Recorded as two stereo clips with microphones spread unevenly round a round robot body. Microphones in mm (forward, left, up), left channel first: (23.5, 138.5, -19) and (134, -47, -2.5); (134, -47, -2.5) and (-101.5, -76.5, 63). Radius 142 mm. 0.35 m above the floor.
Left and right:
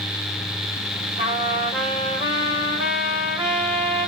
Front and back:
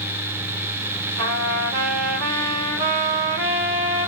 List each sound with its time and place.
1.2 s a trumpet: 130° right, 2.5 m